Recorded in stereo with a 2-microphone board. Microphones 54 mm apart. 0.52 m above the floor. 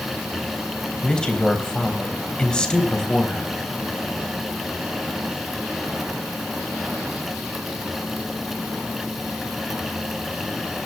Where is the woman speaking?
15° left (ahead or behind), 3.5 m.